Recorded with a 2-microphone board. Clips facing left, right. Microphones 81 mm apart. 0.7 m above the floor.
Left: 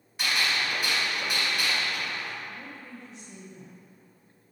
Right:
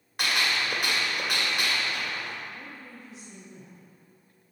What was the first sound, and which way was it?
A gunshot, 65° right (ahead or behind).